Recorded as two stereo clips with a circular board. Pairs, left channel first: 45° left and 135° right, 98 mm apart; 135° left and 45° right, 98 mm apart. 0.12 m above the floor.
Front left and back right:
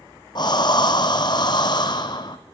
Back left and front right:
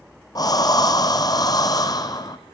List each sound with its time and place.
0.3 s breathing: 85° left, 1.4 m